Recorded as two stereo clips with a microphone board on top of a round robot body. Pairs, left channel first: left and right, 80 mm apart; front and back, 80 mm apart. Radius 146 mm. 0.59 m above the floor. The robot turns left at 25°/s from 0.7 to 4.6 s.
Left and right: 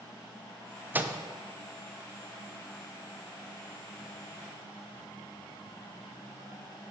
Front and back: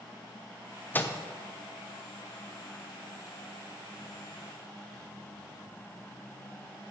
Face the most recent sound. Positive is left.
turn(degrees=-135)